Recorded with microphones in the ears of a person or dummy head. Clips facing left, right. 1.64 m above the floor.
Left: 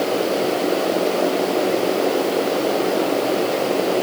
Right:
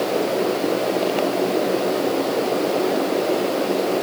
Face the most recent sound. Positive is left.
No sound to turn to.